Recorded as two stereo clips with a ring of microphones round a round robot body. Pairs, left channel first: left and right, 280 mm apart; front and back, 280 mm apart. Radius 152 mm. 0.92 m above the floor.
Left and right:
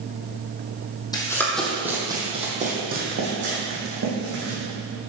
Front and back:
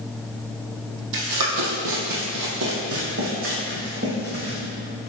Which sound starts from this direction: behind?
Running footsteps, at 1.1 s.